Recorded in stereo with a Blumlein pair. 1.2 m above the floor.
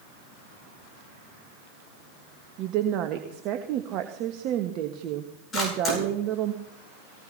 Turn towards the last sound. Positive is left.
turn(degrees=25)